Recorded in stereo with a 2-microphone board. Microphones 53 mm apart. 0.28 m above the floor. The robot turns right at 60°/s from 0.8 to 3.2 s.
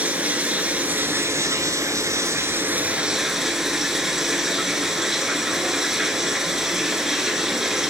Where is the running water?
150° right, 0.9 m; by 7.9 s 5° right, 0.9 m.